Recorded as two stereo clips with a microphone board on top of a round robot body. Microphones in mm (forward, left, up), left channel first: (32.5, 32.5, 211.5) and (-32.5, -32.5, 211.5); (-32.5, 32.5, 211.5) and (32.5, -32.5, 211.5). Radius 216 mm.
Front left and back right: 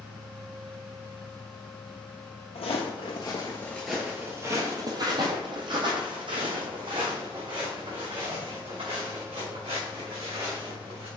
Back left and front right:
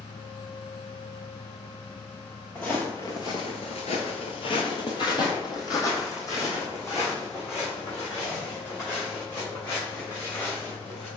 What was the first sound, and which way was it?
Footsteps, 60° left.